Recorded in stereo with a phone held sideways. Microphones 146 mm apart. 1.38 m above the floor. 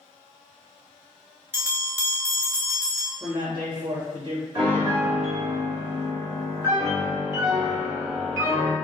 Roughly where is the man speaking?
Right.